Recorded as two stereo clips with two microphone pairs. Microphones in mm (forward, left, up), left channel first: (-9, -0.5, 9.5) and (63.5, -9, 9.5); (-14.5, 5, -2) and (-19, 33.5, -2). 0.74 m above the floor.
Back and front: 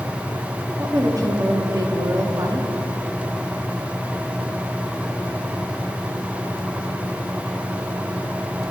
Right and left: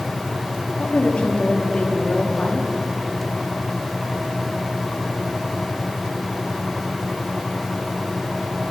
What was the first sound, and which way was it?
A woman speaking, 35° right.